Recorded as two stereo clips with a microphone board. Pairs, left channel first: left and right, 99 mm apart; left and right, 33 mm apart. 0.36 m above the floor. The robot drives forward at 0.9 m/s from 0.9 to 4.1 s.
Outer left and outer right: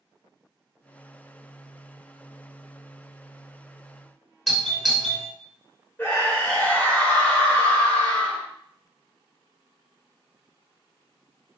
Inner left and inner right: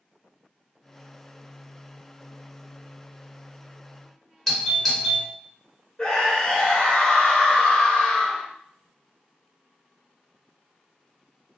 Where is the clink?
I don't hear a clink.